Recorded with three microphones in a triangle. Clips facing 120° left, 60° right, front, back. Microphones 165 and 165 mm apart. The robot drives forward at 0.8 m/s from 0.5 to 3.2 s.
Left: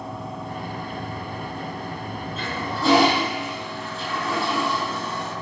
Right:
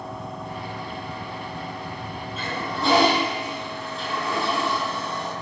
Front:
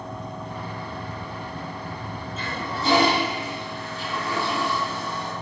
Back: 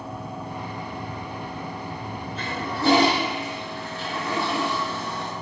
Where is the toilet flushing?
150° right, 6 m; by 5.3 s 155° right, 6.5 m.